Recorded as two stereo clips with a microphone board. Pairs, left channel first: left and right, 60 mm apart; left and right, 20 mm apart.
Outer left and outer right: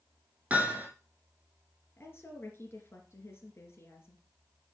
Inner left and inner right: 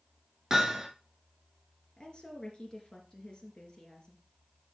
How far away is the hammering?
About 5.5 m.